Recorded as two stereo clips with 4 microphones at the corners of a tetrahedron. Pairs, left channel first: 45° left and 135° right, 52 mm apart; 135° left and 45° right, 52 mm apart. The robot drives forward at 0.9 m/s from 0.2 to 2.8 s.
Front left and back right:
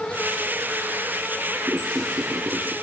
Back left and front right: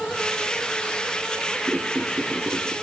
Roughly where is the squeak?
Right.